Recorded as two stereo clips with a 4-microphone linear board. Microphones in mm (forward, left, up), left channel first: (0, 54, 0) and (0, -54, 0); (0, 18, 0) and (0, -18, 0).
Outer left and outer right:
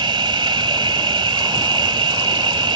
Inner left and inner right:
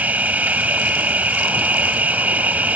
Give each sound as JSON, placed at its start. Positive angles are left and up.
{"t": 0.0, "sound": "an insect", "side_deg": -45}